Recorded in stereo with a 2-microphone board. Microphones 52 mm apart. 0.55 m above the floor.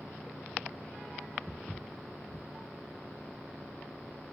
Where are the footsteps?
5° left (ahead or behind), 0.8 m.